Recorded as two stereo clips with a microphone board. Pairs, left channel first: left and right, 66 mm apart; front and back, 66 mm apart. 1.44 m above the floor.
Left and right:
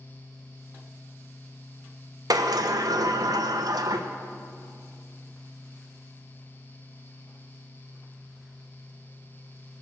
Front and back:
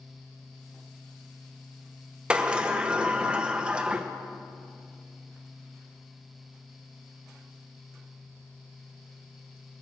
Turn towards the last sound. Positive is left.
turn(degrees=-105)